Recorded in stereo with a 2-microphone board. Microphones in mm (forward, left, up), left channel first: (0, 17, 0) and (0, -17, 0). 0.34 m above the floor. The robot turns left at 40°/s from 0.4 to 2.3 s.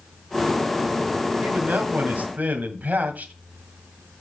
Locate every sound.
1.4 s a man speaking: 75° right, 1.9 m; by 3.3 s 110° right, 1.9 m